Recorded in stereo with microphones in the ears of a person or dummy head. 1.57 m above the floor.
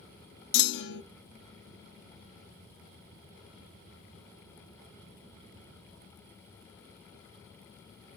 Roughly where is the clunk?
Left.